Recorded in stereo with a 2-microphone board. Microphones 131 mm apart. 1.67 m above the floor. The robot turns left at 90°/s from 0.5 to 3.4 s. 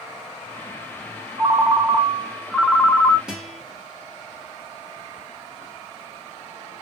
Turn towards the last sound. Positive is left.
turn(degrees=0)  # may be behind; listen again after turning